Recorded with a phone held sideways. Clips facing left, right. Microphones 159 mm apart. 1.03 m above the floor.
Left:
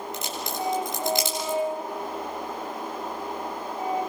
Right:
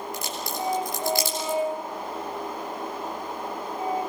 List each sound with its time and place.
0.1 s a crack: 20° left (ahead or behind), 9.5 m